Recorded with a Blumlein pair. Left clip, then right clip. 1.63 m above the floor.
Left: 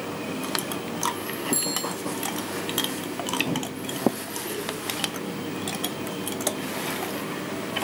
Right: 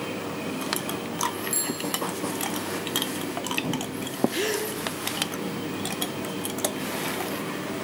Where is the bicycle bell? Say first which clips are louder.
Left 3 dB; 5° left, 7 m.